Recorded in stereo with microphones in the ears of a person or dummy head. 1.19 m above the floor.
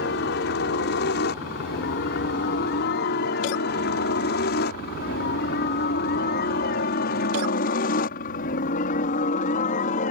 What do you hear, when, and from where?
0.0 s a helicopter: 60° left (ahead or behind); by 10.1 s 40° left (ahead or behind)